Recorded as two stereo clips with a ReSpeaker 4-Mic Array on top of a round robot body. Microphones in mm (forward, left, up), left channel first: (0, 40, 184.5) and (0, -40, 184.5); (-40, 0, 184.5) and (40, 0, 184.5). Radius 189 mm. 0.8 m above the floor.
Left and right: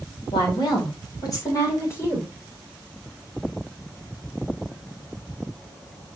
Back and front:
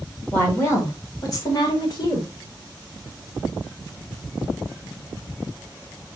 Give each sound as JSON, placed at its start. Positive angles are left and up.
{"t": 0.3, "sound": "a woman speaking", "azimuth_deg": 115, "distance_m": 3.5}